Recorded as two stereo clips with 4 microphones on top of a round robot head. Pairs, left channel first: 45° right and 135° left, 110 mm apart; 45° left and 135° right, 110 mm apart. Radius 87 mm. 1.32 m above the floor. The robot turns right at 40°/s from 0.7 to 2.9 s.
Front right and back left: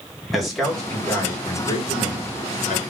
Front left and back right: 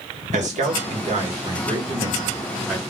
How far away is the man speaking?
About 1.0 m.